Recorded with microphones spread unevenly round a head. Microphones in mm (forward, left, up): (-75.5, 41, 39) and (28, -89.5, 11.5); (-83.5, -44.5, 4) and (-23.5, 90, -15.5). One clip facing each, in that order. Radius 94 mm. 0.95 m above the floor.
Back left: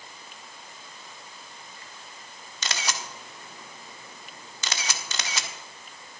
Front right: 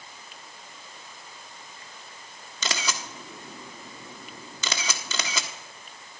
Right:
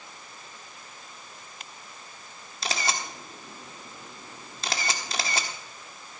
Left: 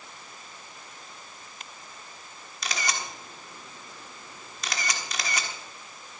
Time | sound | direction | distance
2.6 | a camera shutter | 45° right | 1.2 m